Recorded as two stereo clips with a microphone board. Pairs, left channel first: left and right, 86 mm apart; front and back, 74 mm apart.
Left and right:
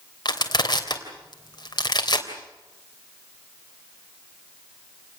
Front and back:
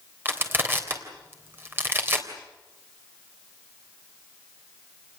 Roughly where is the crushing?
Behind left.